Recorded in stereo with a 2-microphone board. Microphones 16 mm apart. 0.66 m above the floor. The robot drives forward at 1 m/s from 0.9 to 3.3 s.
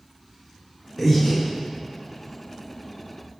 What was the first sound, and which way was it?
Breathing, 5° right (ahead or behind).